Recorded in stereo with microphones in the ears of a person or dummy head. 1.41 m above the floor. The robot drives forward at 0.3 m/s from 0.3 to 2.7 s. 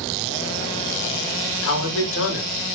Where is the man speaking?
70° left (ahead or behind), 1.0 m; by 2.8 s 55° left (ahead or behind), 1.1 m.